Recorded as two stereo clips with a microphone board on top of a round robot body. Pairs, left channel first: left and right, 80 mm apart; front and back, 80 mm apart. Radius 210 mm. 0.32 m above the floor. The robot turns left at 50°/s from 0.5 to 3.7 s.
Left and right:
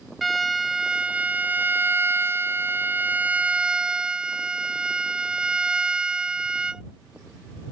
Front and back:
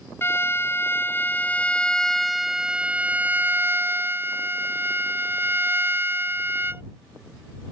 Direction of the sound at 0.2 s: Straight ahead.